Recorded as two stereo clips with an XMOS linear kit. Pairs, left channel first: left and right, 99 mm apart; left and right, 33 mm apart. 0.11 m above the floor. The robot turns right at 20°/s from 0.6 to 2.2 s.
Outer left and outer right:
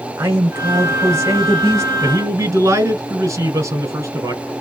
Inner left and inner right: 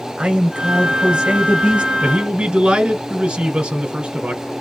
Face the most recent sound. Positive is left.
turn(degrees=-30)  # may be behind; listen again after turning